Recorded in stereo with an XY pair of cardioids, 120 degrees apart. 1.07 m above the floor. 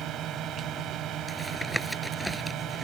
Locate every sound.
0.0 s a drone: 65° right
1.3 s tapping: 5° right